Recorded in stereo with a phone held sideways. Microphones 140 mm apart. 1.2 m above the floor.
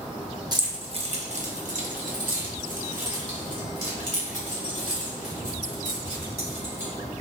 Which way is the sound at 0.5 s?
30° right (ahead or behind).